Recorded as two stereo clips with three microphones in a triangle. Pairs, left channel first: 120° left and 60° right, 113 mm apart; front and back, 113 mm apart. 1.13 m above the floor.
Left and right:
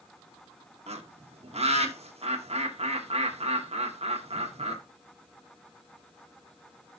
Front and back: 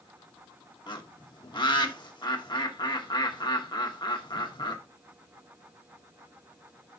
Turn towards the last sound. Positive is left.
turn(degrees=-45)